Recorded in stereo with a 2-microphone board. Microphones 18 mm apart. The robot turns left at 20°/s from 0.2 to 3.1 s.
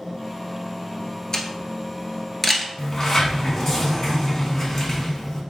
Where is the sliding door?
30° left (ahead or behind), 1.1 m.